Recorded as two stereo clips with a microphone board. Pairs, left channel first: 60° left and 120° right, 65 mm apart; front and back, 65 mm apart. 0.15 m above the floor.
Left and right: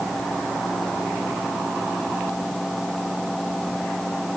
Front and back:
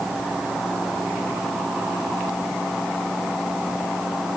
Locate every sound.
Only background noise.